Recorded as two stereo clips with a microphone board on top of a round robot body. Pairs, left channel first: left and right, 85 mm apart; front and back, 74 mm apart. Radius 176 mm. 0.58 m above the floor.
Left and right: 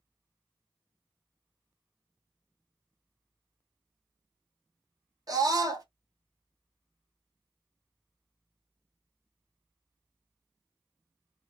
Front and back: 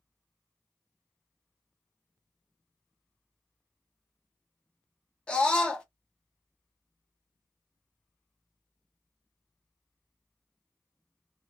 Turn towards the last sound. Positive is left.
turn(degrees=-70)